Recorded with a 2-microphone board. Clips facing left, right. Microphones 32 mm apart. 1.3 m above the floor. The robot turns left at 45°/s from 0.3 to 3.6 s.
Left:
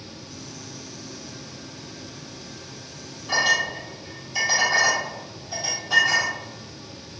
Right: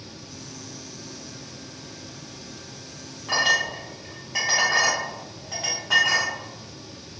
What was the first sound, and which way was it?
A clink, 55° right (ahead or behind).